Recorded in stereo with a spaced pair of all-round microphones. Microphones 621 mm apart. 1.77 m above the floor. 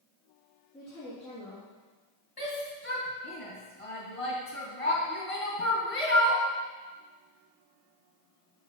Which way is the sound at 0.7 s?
Centre (ahead or behind).